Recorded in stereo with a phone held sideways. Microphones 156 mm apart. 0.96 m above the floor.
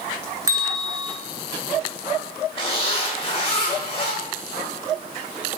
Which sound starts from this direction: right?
A bell, at 0.5 s.